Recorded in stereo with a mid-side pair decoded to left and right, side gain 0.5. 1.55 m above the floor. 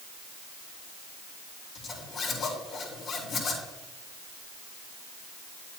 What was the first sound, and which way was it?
A zipper, 60° left.